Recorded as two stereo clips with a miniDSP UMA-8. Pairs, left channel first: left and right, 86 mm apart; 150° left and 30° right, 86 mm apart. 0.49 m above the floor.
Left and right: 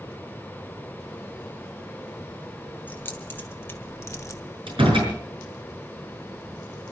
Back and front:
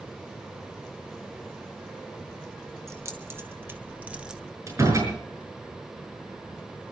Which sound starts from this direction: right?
A door slam, at 4.7 s.